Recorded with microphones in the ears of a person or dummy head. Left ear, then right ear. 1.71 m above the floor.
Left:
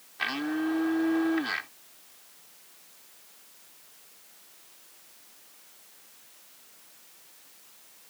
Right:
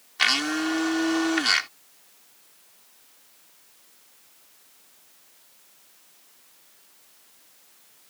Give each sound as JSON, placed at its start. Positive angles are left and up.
{"t": 0.2, "sound": "a blender", "side_deg": -70}